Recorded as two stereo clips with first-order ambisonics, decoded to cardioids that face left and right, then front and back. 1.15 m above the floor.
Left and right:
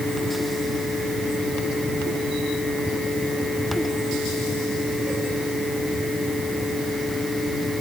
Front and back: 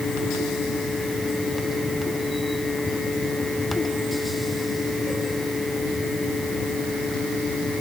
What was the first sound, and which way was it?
Only background noise.